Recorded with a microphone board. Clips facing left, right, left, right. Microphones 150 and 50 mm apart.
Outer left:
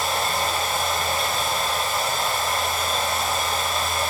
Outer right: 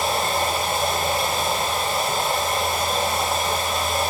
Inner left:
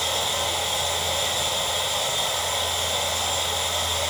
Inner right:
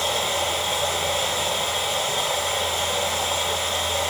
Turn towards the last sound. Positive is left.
turn(degrees=-70)  # may be behind; listen again after turning